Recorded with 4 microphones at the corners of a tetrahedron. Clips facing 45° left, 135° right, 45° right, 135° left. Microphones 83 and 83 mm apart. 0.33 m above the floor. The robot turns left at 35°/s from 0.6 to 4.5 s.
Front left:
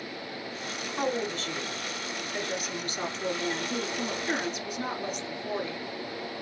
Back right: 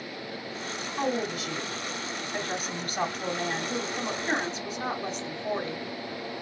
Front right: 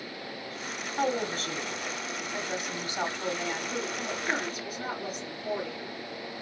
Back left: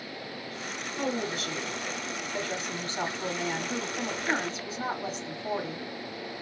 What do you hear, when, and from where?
1.0 s a woman speaking: 50° right, 1.3 m; by 5.8 s 175° right, 1.3 m